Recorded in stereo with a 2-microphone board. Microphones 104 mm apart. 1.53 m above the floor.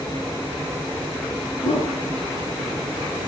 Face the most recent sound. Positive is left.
turn(degrees=75)  # may be behind; listen again after turning